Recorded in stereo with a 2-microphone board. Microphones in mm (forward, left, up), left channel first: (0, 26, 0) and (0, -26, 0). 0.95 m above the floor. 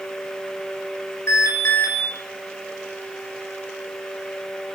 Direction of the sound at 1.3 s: 60° left (ahead or behind).